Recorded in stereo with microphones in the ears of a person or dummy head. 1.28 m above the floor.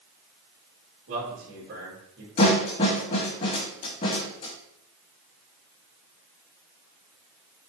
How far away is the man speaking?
About 3.5 m.